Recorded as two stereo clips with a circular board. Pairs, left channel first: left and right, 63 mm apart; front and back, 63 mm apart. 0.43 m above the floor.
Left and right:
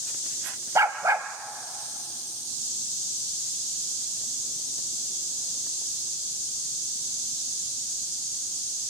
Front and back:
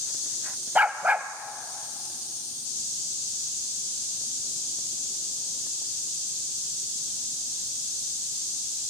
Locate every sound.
0.8 s a dog barking: 120° right, 1.0 m